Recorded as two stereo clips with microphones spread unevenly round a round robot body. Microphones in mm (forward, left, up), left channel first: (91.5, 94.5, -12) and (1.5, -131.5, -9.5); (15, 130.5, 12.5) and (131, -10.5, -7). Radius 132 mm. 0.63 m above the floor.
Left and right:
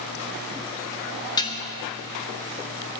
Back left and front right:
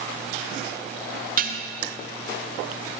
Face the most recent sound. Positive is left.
turn(degrees=-5)